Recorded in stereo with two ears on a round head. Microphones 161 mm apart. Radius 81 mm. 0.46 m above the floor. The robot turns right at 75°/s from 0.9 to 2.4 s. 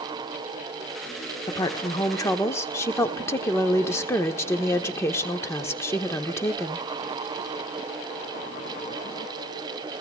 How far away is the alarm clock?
No alarm clock in this recording.